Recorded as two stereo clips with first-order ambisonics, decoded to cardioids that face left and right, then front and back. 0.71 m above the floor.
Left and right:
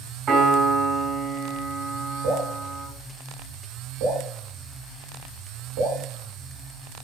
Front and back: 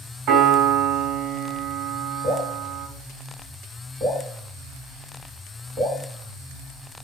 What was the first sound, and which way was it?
A piano, 145° right.